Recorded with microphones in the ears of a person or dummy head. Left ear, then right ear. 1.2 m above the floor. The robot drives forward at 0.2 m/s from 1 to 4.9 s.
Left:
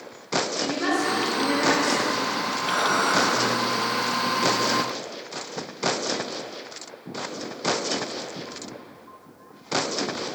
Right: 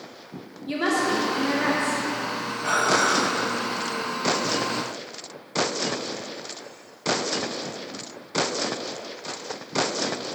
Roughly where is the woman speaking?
Right.